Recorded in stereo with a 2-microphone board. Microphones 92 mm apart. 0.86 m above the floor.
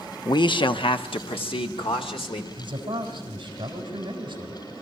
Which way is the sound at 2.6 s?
60° right (ahead or behind).